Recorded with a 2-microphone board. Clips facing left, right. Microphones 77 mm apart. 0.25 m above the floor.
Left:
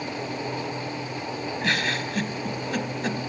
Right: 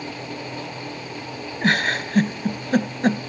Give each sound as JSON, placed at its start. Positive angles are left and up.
{"t": 1.6, "sound": "a giggle", "side_deg": -45, "distance_m": 0.7}